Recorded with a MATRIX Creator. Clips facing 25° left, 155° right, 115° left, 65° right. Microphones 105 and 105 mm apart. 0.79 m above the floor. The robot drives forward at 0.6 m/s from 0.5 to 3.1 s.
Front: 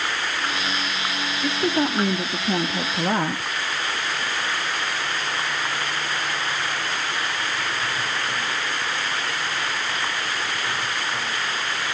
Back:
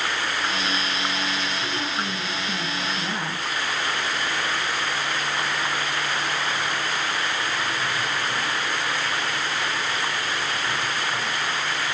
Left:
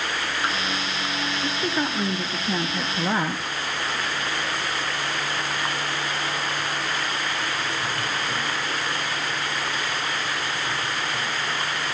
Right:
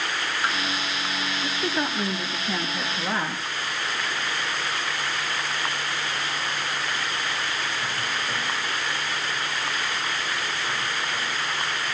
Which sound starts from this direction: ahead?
A woman speaking, at 1.4 s.